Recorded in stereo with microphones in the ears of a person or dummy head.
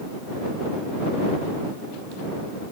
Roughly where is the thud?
No thud in this recording.